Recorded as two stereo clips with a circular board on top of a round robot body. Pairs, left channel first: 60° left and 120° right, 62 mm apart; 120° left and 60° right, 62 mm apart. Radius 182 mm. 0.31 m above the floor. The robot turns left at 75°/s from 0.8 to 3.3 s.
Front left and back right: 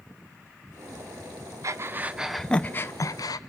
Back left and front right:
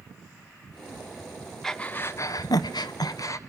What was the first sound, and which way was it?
Breathing, 155° right.